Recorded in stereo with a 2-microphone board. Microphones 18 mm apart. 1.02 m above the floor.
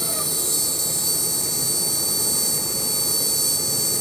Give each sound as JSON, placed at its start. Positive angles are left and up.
{"t": 0.0, "sound": "an insect", "side_deg": 20}